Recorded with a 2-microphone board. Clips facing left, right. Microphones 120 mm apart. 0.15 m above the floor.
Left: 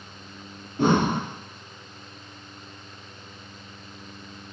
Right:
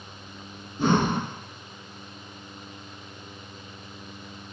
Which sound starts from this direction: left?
Breathing, at 0.8 s.